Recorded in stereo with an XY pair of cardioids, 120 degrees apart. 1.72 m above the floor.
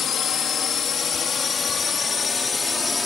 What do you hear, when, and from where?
0.0 s a drone: 55° left; by 3.1 s 25° left